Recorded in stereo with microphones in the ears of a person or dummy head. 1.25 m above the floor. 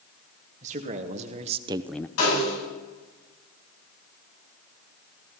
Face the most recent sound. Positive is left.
turn(degrees=80)